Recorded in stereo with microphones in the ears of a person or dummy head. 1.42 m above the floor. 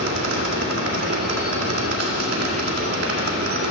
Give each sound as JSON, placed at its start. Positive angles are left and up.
{"t": 0.0, "sound": "a machine running", "side_deg": -70, "distance_m": 2.5}